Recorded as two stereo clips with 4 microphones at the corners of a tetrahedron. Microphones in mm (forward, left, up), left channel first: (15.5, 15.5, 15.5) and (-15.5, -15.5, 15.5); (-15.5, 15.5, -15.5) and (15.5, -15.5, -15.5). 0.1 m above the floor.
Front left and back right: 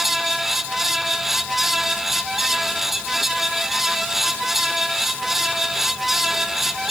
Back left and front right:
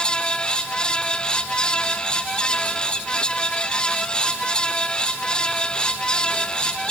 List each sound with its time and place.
Only background noise.